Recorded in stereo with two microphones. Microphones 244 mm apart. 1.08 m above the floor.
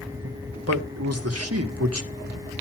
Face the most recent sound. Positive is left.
turn(degrees=-80)